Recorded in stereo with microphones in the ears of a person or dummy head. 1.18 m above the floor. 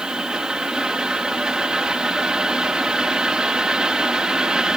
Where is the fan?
5° right (ahead or behind).